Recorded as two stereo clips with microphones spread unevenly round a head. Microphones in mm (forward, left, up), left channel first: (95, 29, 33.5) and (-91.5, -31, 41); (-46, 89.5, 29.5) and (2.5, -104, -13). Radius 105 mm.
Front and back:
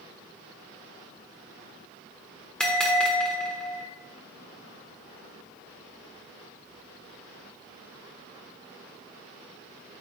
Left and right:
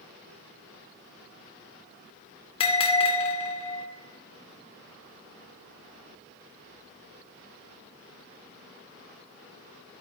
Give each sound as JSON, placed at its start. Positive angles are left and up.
{"t": 2.6, "sound": "a bell", "azimuth_deg": 105, "distance_m": 1.2}